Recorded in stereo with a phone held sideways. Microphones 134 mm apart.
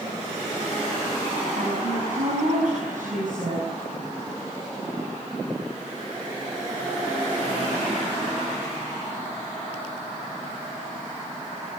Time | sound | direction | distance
1.6 | a woman speaking | 70° right (ahead or behind) | 6.5 m